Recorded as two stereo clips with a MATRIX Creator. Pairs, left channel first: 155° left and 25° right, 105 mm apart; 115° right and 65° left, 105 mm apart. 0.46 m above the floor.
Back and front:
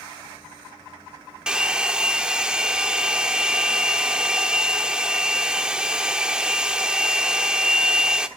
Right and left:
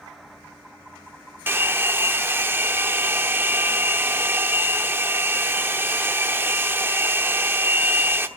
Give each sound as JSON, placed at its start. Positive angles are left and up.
{"t": 1.5, "sound": "a hair dryer", "azimuth_deg": 45, "distance_m": 0.9}